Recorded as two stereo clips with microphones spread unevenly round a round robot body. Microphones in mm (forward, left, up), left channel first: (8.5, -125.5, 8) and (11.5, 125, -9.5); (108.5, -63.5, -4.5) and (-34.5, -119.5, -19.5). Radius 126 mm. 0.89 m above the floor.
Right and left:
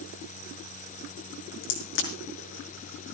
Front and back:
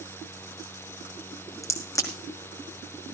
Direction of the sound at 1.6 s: 50° right.